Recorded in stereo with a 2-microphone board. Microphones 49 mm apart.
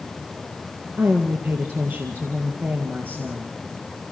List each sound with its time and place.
1.0 s a woman speaking: 40° right (ahead or behind), 2.5 m